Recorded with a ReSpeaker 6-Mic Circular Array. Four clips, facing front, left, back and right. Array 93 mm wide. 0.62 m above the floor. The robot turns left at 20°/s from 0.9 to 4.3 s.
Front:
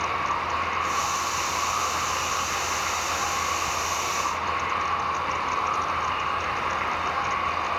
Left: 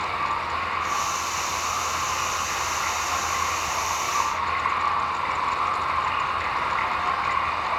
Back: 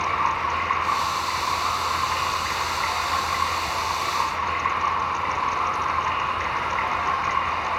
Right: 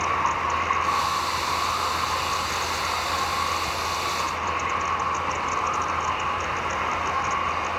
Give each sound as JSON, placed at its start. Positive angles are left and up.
{"t": 0.0, "sound": "running water", "azimuth_deg": -140, "distance_m": 2.5}